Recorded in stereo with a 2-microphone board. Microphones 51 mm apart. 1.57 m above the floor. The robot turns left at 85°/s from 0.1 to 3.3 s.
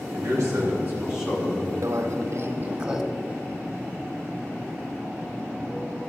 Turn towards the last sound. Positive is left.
turn(degrees=160)